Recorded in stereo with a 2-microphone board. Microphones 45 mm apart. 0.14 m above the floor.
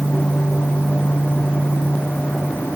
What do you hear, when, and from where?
Only background noise.